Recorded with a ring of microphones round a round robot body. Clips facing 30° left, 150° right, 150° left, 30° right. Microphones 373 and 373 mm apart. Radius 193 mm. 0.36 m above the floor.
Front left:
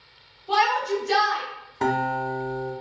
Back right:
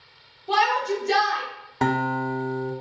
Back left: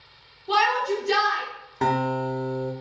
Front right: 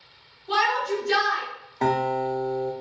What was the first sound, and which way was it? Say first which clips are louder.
A shout: even, back left 1 dB; 175° left.